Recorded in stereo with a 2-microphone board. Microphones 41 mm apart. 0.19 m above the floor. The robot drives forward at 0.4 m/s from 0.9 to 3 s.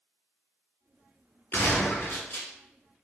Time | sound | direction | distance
1.5 | a gunshot | 60° left (ahead or behind) | 1.4 m